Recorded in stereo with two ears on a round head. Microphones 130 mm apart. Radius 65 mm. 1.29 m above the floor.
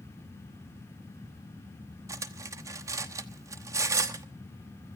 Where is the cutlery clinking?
20° right (ahead or behind), 1.1 m.